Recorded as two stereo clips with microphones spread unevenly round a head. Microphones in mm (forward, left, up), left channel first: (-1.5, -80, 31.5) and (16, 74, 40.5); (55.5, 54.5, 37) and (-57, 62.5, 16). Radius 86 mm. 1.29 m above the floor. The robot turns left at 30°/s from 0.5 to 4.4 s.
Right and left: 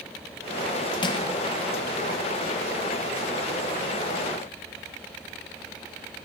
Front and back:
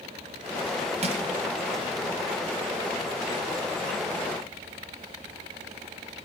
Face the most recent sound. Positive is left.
turn(degrees=100)